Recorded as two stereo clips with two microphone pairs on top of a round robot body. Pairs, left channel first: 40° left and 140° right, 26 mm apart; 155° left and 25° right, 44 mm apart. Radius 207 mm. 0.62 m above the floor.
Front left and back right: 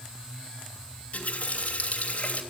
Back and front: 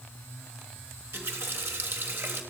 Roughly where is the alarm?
I don't hear an alarm.